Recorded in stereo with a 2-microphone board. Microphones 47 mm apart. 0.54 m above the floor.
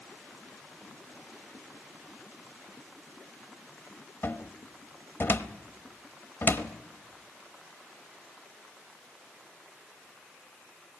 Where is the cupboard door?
55° left (ahead or behind), 1.0 m.